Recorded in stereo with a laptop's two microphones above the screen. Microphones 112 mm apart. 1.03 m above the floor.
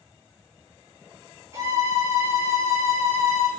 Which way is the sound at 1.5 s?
25° right (ahead or behind).